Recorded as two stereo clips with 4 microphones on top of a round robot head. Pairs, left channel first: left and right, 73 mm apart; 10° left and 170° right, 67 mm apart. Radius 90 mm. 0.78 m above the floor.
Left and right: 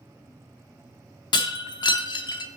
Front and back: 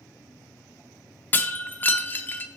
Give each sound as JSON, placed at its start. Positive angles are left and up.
{"t": 1.3, "sound": "breaking glass", "azimuth_deg": 75, "distance_m": 0.6}